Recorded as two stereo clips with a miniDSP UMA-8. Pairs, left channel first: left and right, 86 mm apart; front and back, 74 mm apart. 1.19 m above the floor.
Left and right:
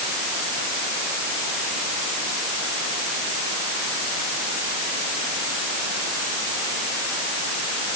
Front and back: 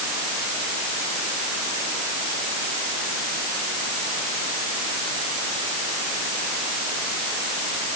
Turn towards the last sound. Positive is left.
No sound to turn to.